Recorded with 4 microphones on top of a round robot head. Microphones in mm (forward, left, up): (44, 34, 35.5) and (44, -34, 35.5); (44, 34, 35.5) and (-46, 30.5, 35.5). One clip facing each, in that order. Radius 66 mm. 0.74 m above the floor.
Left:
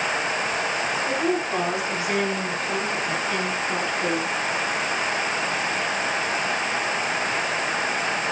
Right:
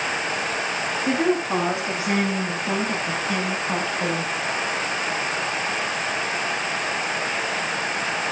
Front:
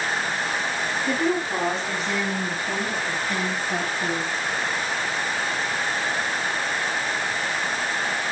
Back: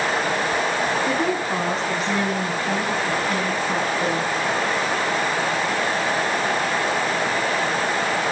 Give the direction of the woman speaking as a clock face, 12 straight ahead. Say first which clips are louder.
Right 5 dB, back 2 dB; 4 o'clock.